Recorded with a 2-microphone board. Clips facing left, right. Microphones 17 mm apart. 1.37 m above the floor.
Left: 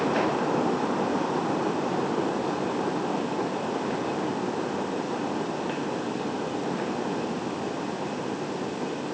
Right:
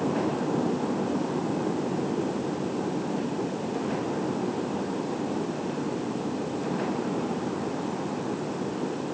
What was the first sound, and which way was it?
Only background noise.